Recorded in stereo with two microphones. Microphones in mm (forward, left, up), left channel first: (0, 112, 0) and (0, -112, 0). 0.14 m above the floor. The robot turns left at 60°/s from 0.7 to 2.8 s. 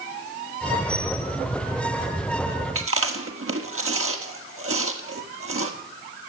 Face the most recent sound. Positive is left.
turn(degrees=-70)  # may be behind; listen again after turning